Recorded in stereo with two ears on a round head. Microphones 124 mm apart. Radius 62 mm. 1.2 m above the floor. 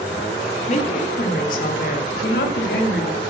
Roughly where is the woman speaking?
Left.